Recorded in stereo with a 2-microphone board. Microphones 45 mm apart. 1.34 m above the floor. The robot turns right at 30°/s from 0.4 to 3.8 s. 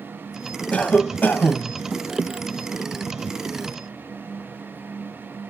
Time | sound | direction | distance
0.7 | a cough | 35° left | 0.7 m